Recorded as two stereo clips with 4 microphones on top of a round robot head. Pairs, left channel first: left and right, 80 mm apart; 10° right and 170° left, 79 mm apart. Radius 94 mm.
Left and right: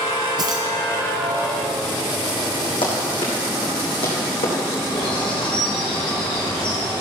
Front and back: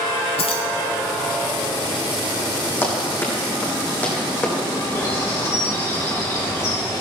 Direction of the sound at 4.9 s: 45° left.